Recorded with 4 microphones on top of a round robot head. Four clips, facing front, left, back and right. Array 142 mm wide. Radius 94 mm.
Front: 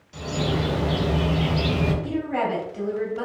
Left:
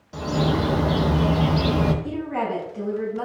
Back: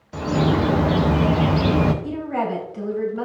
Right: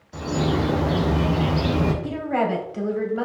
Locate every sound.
0.1 s a bird: 170° left, 0.9 m
2.0 s a woman speaking: 85° right, 3.5 m